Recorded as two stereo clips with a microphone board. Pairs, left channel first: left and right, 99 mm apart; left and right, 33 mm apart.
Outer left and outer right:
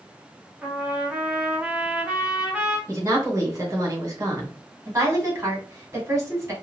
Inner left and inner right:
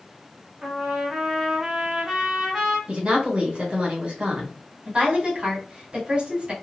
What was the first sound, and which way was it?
A trumpet, 15° right (ahead or behind).